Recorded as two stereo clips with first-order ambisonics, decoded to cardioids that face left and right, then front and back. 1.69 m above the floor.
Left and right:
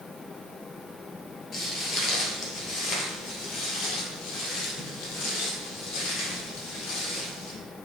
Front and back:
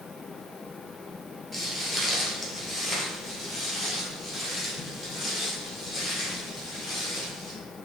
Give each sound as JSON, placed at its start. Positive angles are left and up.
{"t": 1.5, "sound": "footsteps", "azimuth_deg": 100, "distance_m": 1.7}